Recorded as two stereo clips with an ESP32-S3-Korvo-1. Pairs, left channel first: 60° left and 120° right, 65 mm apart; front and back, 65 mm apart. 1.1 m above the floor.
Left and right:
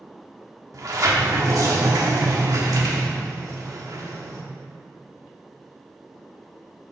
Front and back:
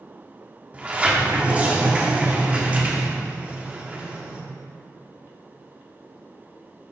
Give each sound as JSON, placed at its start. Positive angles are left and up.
{"t": 0.7, "sound": "a sliding door", "azimuth_deg": -115, "distance_m": 1.0}